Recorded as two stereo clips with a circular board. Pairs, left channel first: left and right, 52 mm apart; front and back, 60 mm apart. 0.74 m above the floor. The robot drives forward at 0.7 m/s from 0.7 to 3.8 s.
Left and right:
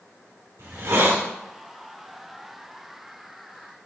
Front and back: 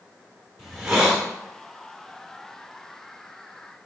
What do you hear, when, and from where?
0.6 s a hiss: 90° right, 2.5 m; by 1.2 s 100° right, 2.5 m